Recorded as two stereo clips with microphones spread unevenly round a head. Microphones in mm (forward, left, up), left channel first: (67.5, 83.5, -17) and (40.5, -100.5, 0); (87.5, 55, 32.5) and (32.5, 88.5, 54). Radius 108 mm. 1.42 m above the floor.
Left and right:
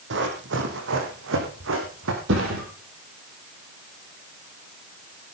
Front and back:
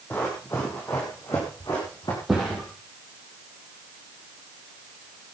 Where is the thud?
130° right, 6.5 m.